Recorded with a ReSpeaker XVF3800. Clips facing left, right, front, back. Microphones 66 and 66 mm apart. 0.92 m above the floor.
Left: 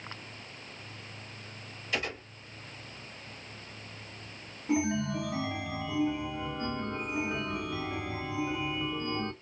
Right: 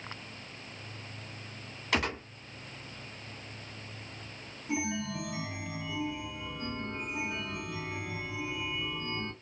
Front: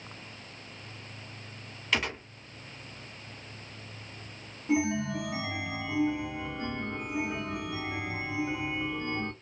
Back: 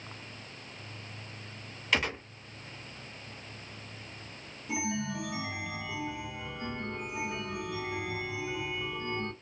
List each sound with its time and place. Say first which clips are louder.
1.9 s a gunshot: right 4 dB, back 1 dB; 90° right, 1.2 m
4.7 s a chime: left 5 dB, front 6 dB; 45° left, 1.0 m